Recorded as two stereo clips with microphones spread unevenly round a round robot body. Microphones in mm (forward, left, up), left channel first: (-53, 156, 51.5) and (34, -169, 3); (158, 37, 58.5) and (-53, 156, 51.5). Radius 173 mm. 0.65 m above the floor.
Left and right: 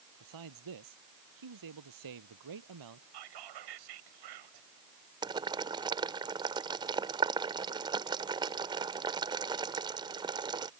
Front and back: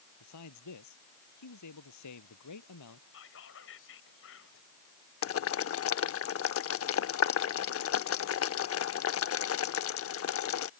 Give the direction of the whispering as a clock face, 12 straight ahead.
3 o'clock.